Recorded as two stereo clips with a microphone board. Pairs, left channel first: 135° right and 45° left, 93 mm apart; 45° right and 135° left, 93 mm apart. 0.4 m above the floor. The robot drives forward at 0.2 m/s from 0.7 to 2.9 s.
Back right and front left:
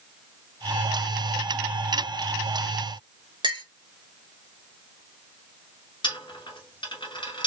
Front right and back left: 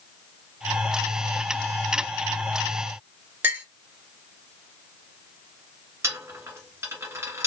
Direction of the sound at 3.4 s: 70° left.